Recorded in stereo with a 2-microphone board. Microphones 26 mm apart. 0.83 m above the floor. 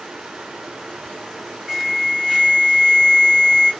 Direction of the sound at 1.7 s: 15° right (ahead or behind).